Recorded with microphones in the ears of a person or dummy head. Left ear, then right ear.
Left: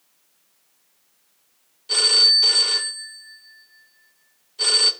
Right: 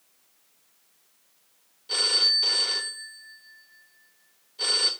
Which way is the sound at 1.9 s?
15° left (ahead or behind).